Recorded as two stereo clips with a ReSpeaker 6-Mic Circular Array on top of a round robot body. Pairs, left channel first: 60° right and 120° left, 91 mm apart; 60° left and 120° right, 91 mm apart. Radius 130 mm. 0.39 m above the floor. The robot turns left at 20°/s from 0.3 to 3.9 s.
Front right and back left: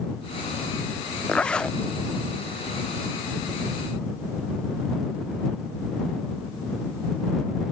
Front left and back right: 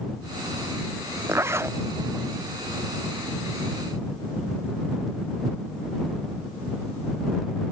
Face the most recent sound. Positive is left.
turn(degrees=-175)